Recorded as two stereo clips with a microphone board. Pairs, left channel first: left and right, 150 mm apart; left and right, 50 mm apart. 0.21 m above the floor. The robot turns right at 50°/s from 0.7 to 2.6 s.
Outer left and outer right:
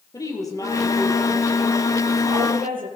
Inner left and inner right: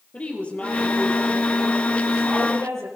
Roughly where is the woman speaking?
Behind left.